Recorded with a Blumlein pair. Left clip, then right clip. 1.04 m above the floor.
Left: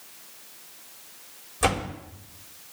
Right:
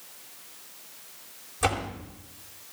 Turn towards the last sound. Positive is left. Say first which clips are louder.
# left 2 dB
turn(degrees=15)